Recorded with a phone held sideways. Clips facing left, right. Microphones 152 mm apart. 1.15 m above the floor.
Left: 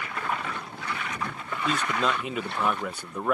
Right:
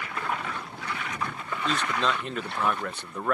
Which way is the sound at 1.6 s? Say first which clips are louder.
Left 1 dB; 5° left (ahead or behind).